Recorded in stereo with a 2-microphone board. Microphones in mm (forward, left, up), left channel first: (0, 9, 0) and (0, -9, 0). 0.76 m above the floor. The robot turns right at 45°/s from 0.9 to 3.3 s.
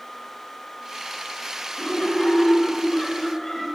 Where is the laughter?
105° left, 8 m; by 3.7 s 175° left, 8 m.